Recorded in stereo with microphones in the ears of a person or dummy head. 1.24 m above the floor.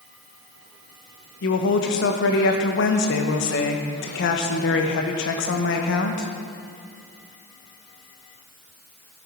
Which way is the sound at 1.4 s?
60° left (ahead or behind).